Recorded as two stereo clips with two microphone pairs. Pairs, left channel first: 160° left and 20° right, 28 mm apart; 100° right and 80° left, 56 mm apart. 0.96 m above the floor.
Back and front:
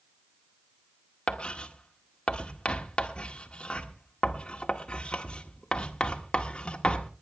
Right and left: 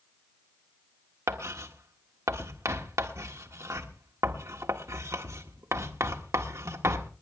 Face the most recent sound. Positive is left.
turn(degrees=110)